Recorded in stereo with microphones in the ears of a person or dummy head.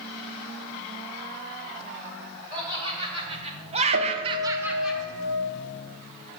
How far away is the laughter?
About 2 m.